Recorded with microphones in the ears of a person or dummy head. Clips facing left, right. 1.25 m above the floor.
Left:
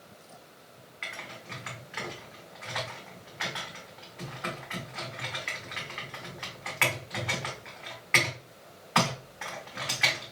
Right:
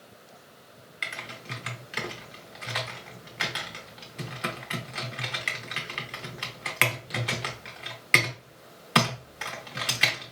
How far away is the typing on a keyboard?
About 0.7 m.